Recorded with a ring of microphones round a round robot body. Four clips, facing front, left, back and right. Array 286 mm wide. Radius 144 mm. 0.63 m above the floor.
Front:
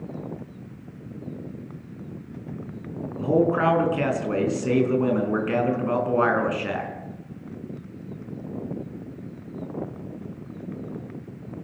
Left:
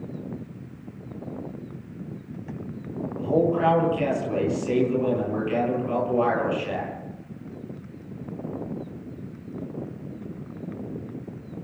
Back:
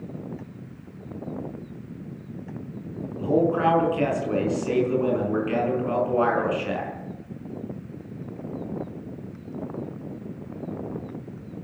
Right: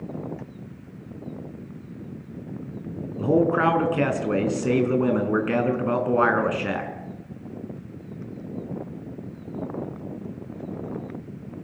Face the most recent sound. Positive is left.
turn(degrees=-70)